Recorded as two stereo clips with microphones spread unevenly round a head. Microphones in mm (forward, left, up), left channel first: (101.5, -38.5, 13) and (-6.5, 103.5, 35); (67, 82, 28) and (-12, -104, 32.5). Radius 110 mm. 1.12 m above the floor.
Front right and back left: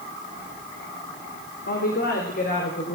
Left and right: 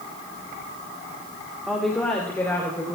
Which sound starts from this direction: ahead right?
A woman speaking, at 1.7 s.